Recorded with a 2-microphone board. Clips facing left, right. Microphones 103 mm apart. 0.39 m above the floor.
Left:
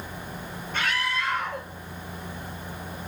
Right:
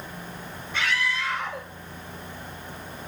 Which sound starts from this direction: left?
A scream, at 0.7 s.